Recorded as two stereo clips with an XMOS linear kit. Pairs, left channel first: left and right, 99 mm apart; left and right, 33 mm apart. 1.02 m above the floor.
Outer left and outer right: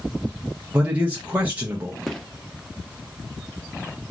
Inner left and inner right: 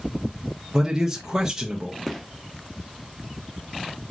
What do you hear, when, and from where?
0.7 s a man speaking: 15° right (ahead or behind), 0.5 m
2.1 s a gunshot: 5° left (ahead or behind), 0.5 m